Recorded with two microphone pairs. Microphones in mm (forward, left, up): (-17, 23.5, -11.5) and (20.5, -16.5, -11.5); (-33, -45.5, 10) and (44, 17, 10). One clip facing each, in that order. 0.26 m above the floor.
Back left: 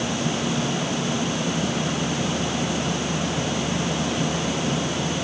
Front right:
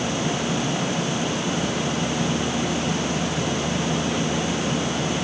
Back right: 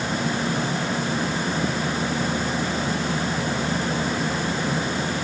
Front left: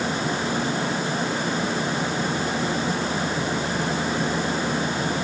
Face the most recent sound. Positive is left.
No sound to turn to.